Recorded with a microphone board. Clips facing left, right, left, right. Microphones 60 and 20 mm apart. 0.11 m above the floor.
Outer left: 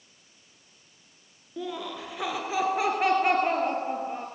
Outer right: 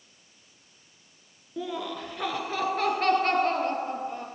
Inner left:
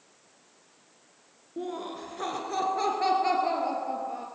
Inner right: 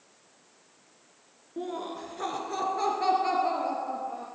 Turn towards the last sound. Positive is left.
turn(degrees=20)  # may be behind; listen again after turning